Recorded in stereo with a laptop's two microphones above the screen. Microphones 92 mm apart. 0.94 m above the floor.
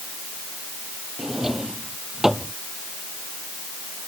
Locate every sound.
1.2 s a drawer: 5° right (ahead or behind)